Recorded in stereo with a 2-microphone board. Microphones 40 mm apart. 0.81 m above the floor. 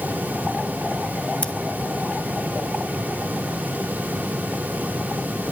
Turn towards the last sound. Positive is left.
turn(degrees=30)  # may be behind; listen again after turning